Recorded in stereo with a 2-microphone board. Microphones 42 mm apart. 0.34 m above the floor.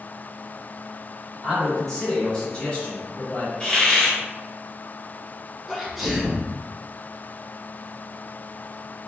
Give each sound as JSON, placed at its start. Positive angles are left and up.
{"t": 1.4, "sound": "a man speaking", "side_deg": -5, "distance_m": 1.8}
{"t": 3.6, "sound": "a hiss", "side_deg": 20, "distance_m": 1.4}
{"t": 5.7, "sound": "a sneeze", "side_deg": 0, "distance_m": 0.9}